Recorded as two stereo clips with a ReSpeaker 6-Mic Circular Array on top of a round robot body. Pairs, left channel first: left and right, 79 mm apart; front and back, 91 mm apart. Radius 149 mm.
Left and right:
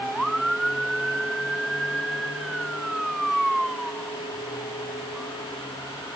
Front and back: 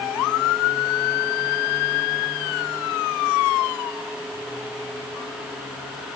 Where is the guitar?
I don't hear a guitar.